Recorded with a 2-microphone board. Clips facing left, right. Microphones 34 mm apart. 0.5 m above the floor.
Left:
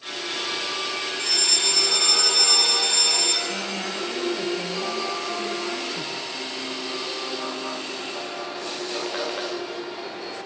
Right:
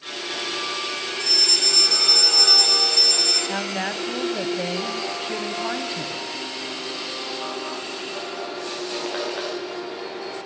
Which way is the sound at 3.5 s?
45° right (ahead or behind).